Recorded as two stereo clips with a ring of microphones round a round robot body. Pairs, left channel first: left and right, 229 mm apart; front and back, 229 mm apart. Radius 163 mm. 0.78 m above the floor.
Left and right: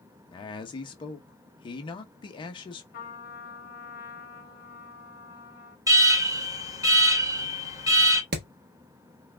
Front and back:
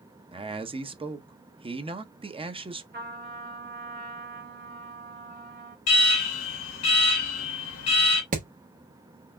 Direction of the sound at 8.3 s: 125° right.